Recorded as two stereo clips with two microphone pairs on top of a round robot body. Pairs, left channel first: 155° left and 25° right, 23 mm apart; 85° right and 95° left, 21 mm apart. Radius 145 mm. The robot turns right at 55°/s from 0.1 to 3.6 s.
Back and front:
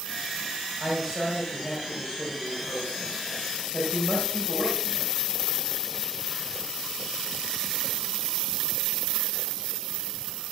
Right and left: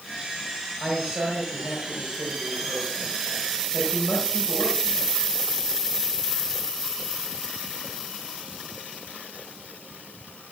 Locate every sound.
0.8 s a man speaking: 50° left, 4.5 m; by 5.1 s 155° right, 4.5 m